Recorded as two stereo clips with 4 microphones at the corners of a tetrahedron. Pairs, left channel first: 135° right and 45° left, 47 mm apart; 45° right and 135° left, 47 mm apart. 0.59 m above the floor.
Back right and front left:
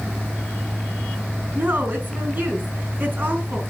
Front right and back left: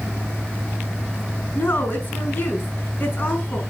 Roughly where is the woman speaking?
Ahead.